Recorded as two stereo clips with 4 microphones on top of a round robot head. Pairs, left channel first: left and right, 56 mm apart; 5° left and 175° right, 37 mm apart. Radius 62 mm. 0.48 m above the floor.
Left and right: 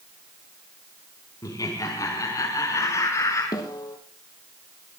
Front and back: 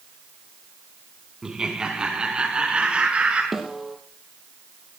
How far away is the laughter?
About 4 m.